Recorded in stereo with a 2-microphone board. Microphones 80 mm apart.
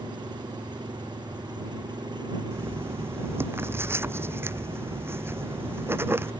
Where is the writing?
30° right (ahead or behind).